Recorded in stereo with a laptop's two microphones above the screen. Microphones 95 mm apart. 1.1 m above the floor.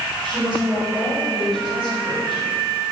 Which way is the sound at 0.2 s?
55° right (ahead or behind).